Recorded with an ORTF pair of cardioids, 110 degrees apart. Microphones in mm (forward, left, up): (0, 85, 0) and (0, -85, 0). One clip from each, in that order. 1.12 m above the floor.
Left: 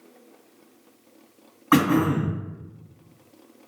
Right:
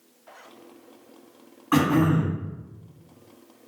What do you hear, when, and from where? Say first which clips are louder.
1.7 s throat clearing: left 2 dB; 40° left, 1.5 m